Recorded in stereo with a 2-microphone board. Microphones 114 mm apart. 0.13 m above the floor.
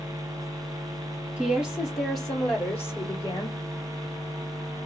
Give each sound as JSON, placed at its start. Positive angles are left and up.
{"t": 1.4, "sound": "a woman speaking", "side_deg": -10, "distance_m": 2.0}